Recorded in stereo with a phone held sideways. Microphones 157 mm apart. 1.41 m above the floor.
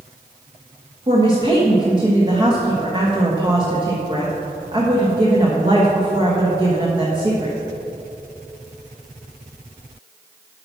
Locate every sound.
1.1 s a woman speaking: 30° right (ahead or behind), 1.4 m